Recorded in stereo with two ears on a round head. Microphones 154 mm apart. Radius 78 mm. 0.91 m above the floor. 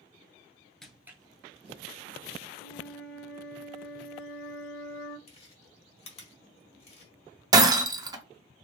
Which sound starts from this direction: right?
Breaking glass, at 7.5 s.